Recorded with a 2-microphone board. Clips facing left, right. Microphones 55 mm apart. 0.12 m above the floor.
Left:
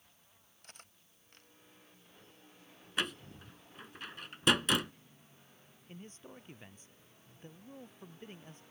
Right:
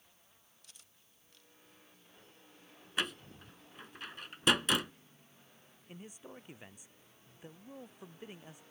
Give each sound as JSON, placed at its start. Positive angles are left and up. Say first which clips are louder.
{"t": 0.6, "sound": "cutlery clinking", "louder": "left 10 dB", "side_deg": 50}
{"t": 3.0, "sound": "a door slam", "louder": "even", "side_deg": 0}
{"t": 5.9, "sound": "a man speaking", "louder": "right 1 dB", "side_deg": -10}